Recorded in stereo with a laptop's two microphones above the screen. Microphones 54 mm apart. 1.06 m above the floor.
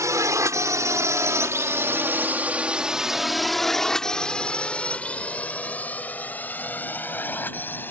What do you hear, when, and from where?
0.0 s a drone: 80° right; by 7.9 s 40° left (ahead or behind)